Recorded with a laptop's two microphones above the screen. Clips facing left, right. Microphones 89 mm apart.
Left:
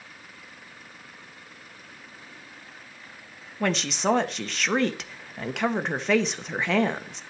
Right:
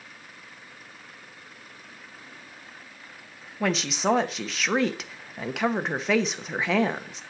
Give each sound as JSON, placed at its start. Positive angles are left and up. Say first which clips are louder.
{"t": 3.6, "sound": "a woman speaking", "louder": "even", "side_deg": 0, "distance_m": 1.1}